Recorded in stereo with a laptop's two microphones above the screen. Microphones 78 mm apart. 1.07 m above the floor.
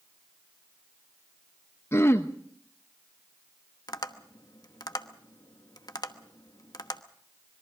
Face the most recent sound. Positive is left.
turn(degrees=60)  # may be behind; listen again after turning